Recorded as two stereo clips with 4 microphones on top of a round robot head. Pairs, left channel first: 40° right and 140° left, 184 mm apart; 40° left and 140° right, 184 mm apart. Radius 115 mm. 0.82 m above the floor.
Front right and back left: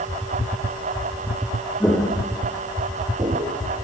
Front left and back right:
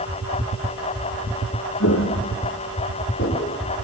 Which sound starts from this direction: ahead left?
Footsteps, at 1.8 s.